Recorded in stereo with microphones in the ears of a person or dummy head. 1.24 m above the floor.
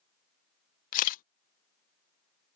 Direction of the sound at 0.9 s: 45° left (ahead or behind).